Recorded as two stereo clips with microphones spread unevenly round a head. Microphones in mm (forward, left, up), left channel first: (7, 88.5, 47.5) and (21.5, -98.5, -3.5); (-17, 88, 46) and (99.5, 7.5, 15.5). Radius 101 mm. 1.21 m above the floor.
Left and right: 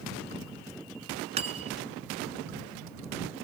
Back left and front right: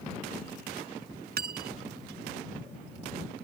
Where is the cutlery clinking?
25° right.